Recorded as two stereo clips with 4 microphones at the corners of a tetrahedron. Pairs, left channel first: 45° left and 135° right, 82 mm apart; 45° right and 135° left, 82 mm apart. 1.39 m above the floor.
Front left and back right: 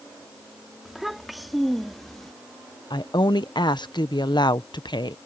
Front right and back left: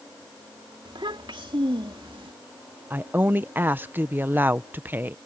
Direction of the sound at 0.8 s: 140° left.